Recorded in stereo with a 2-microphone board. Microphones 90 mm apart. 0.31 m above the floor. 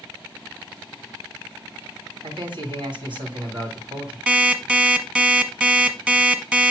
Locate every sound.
2.2 s a man speaking: 60° right (ahead or behind), 2.5 m
4.3 s an alarm clock: 15° right (ahead or behind), 1.1 m